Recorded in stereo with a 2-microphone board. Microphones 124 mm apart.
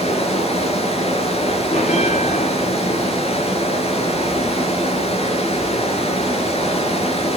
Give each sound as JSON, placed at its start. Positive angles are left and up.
{"t": 0.0, "sound": "running water", "side_deg": 55, "distance_m": 4.5}
{"t": 1.7, "sound": "a bell", "side_deg": 60, "distance_m": 4.5}